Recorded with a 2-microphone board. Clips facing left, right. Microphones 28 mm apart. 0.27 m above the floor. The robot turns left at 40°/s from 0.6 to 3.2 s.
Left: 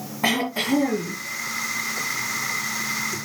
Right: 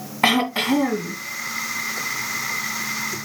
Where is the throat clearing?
60° right (ahead or behind), 3 m; by 1.2 s 50° right (ahead or behind), 3 m.